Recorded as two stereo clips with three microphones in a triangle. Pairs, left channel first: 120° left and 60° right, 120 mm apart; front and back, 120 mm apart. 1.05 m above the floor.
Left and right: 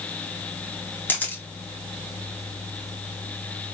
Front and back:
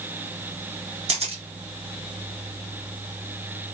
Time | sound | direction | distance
1.1 | a camera shutter | 170° right | 0.8 m